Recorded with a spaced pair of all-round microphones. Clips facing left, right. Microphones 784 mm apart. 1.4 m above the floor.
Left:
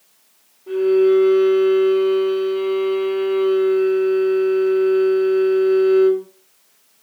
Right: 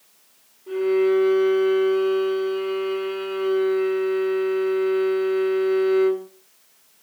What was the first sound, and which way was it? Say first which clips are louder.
A violin: left 5 dB; 25° left (ahead or behind).